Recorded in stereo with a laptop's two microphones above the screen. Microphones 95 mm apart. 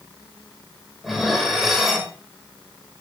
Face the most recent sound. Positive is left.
turn(degrees=0)  # may be behind; listen again after turning